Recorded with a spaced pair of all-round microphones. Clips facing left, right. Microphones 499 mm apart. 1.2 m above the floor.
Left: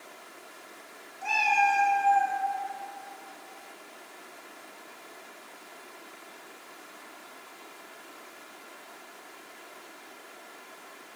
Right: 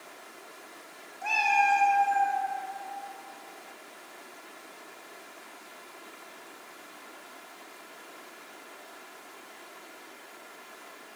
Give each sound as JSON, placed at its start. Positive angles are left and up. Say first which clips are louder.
{"t": 1.2, "sound": "a cat meowing", "louder": "even", "side_deg": 40, "distance_m": 0.8}